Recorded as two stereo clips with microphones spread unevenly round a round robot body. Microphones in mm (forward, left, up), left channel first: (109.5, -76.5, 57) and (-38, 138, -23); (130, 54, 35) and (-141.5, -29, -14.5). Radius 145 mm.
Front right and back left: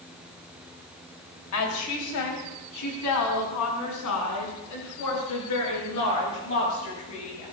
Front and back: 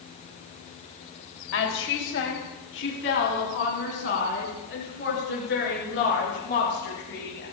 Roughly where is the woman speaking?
Ahead right.